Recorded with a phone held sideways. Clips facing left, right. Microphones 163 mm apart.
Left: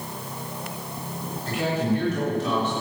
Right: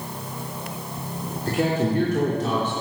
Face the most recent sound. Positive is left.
turn(degrees=-50)  # may be behind; listen again after turning